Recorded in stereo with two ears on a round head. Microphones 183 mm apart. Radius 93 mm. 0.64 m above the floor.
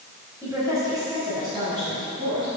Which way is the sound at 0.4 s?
15° right (ahead or behind).